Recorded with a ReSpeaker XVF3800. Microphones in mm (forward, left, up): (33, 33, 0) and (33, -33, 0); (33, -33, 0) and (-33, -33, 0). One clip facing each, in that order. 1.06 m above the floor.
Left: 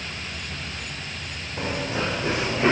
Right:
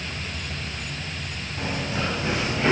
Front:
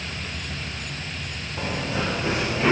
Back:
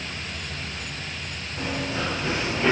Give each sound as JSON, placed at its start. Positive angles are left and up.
{"t": 1.6, "sound": "running footsteps", "azimuth_deg": 65, "distance_m": 4.0}